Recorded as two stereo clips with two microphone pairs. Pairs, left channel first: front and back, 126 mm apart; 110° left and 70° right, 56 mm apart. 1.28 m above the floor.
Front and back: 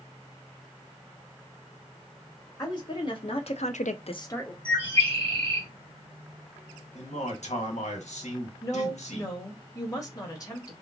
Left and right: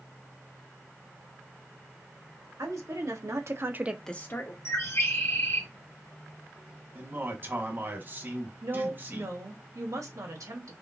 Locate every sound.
2.6 s a woman speaking: 55° right, 2.5 m; by 4.5 s 80° left, 1.1 m
4.7 s a bird: 135° left, 1.8 m
7.0 s a man speaking: 15° right, 1.6 m
8.6 s a woman speaking: 60° right, 1.9 m